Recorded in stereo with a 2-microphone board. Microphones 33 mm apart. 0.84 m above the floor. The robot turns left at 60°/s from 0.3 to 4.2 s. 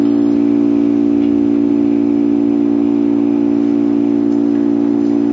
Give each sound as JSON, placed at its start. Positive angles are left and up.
{"t": 0.0, "sound": "an engine running", "azimuth_deg": 40, "distance_m": 0.8}